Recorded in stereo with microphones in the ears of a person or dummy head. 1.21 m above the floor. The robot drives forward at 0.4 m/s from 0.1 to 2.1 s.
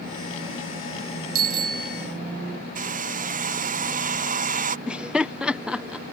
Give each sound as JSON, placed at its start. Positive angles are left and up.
{"t": 1.4, "sound": "a bicycle bell", "side_deg": -50}
{"t": 2.8, "sound": "a hair dryer", "side_deg": -45}
{"t": 4.9, "sound": "laughter", "side_deg": 0}